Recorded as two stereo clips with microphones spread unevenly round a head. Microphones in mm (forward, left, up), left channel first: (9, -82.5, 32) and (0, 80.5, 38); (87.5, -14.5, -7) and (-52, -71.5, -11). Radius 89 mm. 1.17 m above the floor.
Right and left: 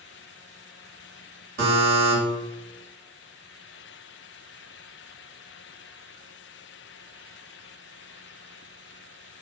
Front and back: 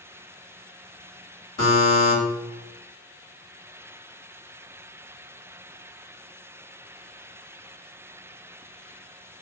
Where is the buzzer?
65° left, 1.7 m.